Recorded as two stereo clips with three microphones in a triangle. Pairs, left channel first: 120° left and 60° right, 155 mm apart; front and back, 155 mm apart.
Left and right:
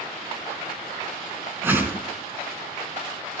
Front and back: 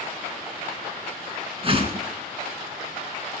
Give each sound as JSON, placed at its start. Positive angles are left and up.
{"t": 1.6, "sound": "a whoosh", "azimuth_deg": -135, "distance_m": 2.5}